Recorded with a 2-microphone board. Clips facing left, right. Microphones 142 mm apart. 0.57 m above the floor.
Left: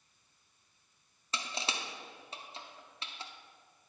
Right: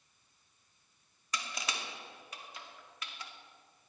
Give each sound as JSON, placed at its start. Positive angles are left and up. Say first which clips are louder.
{"t": 1.3, "sound": "crushing", "louder": "left 1 dB", "side_deg": 30, "distance_m": 0.7}